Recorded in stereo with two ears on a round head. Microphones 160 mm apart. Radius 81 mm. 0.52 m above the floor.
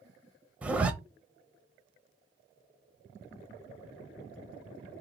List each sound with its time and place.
0.6 s a zipper: 5° right (ahead or behind), 0.9 m